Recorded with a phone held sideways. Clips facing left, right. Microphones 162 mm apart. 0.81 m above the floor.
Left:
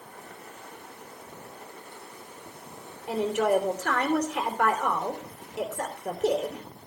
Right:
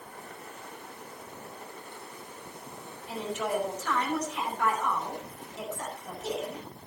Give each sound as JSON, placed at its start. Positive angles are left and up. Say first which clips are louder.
{"t": 3.1, "sound": "a woman speaking", "louder": "left 8 dB", "side_deg": 70, "distance_m": 3.0}